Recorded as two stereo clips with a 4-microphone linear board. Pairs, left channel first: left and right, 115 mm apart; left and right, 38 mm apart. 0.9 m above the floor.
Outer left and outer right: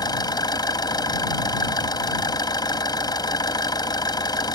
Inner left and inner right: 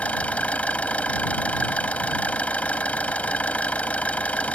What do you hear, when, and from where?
0.0 s an engine running: 40° left (ahead or behind)